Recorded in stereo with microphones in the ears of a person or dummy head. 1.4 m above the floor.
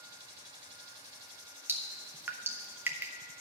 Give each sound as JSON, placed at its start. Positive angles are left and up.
{"t": 1.7, "sound": "dripping", "side_deg": -10, "distance_m": 0.7}